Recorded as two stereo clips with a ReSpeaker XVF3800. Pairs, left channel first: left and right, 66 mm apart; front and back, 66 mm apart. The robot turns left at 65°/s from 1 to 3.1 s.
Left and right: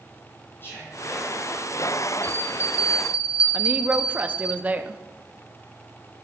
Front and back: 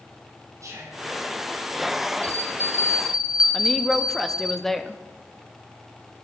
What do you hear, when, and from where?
0.6 s whispering: 145° left, 5 m; by 1.0 s 140° left, 5 m
2.2 s a bell: 155° left, 1.9 m; by 4.5 s 100° left, 1.9 m
3.5 s a woman speaking: 80° right, 0.6 m